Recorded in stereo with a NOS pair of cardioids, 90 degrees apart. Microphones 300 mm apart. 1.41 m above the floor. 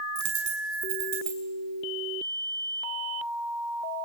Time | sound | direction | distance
0.1 | a dropped coin | 65° right | 6.5 m